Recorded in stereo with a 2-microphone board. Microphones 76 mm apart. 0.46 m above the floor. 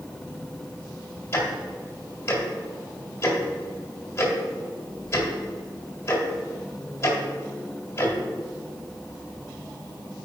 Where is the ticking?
30° left (ahead or behind), 1.9 m.